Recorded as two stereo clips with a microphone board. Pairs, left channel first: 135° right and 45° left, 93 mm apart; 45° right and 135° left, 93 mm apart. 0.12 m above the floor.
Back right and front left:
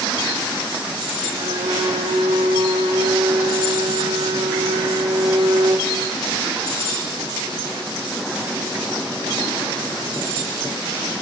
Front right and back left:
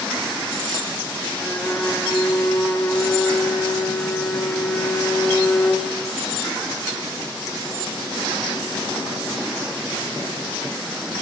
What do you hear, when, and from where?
1.4 s a violin: 30° left, 4 m